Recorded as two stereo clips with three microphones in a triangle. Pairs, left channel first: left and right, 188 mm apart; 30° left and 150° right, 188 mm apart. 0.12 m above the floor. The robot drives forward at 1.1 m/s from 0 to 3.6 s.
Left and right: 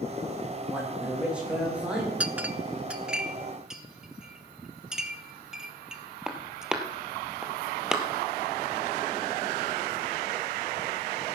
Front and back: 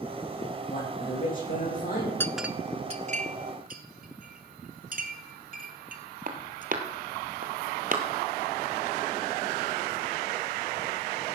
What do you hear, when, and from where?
0.7 s a man speaking: 5° right, 8 m; by 2.1 s 10° right, 6.5 m
2.2 s a clink: 20° right, 0.6 m; by 8.0 s 175° right, 1.4 m